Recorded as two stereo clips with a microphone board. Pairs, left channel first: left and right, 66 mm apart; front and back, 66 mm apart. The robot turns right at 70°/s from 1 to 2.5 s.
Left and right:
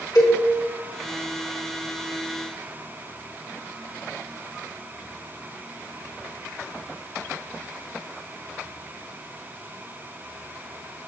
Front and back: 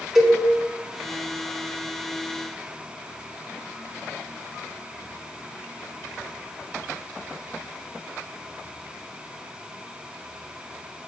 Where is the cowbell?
100° left, 2.5 m.